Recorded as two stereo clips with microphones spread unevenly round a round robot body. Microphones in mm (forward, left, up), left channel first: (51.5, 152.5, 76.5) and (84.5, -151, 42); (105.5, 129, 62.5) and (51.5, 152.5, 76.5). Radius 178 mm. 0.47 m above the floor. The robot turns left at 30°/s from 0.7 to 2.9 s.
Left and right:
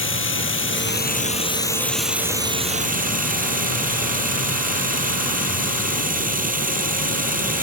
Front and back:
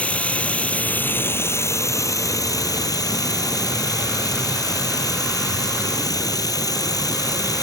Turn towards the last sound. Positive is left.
turn(degrees=-20)